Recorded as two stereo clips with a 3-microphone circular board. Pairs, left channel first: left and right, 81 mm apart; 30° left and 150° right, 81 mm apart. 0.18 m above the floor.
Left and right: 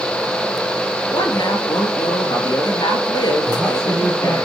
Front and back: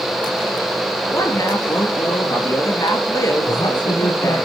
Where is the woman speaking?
70° left, 4 m.